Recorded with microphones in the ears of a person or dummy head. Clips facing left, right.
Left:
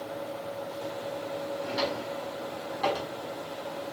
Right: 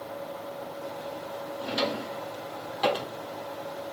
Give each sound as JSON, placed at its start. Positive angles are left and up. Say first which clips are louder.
{"t": 1.6, "sound": "a drawer", "louder": "right 4 dB", "side_deg": -40, "distance_m": 1.6}